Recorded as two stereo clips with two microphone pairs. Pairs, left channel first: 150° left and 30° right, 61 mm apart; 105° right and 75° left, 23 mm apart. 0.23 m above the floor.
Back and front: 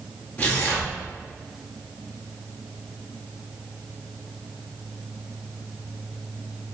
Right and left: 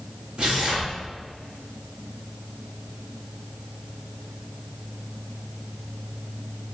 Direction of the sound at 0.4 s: 100° left.